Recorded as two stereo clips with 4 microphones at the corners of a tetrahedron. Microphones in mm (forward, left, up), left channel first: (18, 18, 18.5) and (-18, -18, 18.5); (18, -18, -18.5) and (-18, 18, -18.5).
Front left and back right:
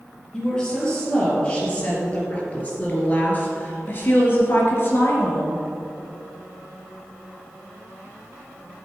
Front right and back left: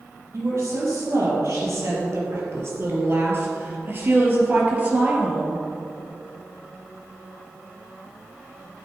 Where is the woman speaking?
120° left, 4 m; by 5.6 s 70° left, 3 m.